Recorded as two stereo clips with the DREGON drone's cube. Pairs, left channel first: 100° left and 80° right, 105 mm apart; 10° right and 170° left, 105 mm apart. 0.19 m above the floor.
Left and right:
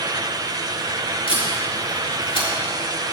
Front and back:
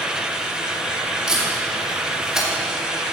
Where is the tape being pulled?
85° left, 4 m.